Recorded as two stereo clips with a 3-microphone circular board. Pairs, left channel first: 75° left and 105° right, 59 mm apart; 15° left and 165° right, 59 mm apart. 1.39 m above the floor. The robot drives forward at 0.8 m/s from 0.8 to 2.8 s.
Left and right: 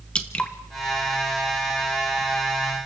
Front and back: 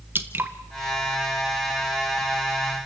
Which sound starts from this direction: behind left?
Dripping, at 0.1 s.